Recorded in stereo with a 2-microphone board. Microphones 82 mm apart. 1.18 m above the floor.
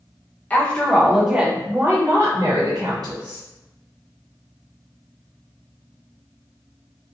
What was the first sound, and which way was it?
A woman speaking, 20° left (ahead or behind).